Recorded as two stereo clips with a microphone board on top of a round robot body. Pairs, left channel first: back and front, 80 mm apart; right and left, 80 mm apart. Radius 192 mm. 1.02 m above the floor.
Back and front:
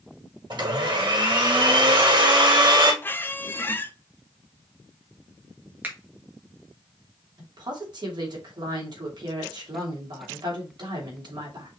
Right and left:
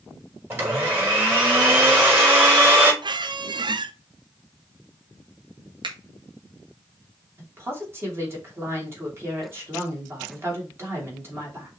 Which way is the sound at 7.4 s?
30° left.